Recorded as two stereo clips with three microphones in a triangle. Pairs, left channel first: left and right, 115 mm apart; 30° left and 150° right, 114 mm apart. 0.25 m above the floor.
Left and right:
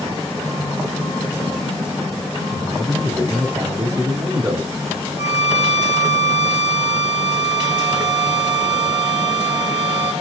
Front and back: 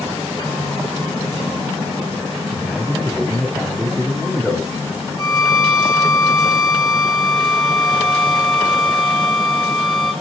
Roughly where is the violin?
Left.